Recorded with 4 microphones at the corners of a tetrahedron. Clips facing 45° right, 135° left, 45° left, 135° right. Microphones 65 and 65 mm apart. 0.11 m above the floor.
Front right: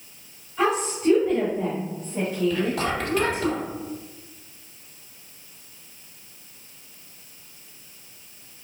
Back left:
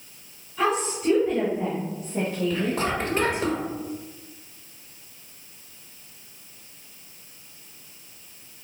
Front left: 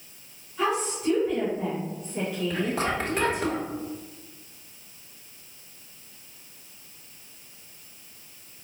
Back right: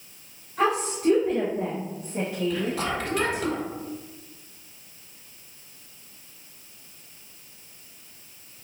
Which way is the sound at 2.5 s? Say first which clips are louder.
Front right 1 dB, even; 90° left.